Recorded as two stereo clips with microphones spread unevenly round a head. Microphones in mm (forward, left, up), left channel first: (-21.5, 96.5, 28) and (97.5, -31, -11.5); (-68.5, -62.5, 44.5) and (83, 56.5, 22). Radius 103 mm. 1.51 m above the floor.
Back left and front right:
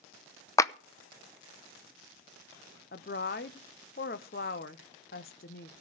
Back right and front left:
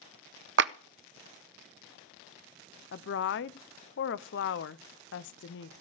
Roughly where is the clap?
Left.